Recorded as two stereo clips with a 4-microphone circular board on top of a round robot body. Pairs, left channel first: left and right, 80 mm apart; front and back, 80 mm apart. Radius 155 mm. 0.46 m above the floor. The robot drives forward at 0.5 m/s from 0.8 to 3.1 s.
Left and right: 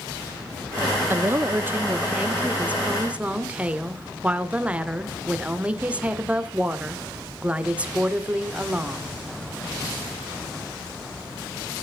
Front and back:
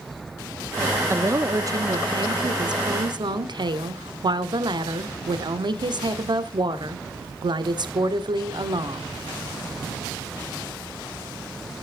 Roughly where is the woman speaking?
Behind right.